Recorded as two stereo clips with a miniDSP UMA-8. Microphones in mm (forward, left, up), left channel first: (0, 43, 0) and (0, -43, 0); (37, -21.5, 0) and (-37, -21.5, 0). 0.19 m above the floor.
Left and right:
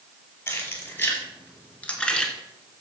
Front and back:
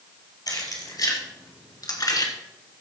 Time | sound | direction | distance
0.5 | keys jangling | 25° left | 3.5 m